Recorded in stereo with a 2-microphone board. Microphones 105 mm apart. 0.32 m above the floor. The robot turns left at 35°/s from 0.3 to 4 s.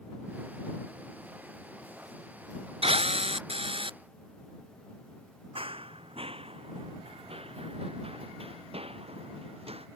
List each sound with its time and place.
2.8 s a drill: 80° right; by 4.0 s 120° right
5.5 s running footsteps: 70° right (ahead or behind); by 9.9 s 80° right